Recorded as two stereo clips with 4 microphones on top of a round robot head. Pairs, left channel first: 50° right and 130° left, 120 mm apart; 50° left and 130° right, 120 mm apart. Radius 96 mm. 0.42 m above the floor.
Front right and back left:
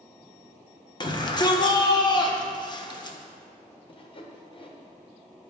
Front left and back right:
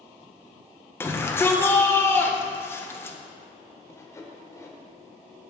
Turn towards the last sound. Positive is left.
turn(degrees=-15)